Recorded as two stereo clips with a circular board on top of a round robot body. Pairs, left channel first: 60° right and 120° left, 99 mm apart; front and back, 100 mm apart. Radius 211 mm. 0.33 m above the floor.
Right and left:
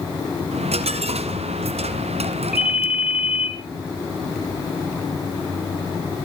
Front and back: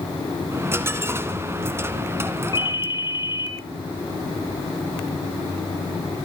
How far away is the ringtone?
About 4 m.